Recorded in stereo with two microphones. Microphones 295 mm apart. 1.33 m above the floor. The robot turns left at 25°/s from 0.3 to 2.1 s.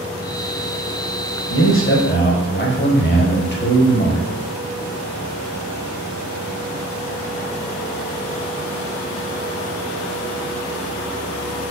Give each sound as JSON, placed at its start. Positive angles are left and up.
{"t": 1.5, "sound": "a man speaking", "side_deg": 50, "distance_m": 0.7}